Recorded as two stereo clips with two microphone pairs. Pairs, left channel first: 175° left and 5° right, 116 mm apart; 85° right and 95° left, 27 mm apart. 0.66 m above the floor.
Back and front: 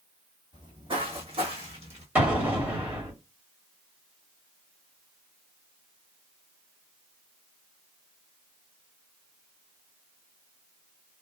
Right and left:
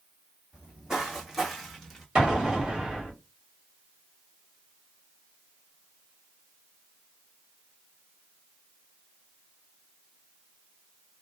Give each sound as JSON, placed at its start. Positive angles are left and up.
{"t": 0.5, "sound": "footsteps", "azimuth_deg": 40, "distance_m": 1.4}
{"t": 2.1, "sound": "an explosion", "azimuth_deg": 65, "distance_m": 1.5}